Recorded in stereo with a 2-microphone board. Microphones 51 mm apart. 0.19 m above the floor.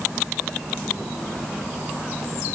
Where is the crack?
No crack in this recording.